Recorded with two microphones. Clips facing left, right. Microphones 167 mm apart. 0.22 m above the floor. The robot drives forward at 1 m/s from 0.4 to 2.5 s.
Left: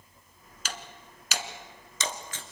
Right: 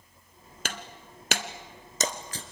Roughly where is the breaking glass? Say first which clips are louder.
Right 3 dB; right.